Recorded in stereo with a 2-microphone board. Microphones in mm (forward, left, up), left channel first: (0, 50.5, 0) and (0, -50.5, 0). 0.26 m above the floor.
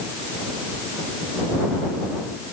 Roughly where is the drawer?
I don't hear a drawer.